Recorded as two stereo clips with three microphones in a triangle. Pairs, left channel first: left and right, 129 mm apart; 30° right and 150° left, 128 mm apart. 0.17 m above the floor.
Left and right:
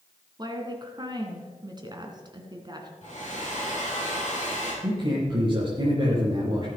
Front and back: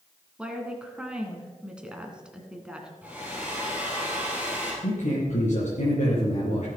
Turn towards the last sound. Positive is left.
turn(degrees=-40)